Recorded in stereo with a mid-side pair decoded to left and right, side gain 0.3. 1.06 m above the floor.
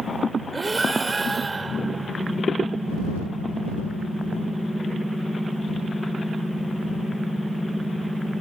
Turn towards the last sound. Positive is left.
turn(degrees=-40)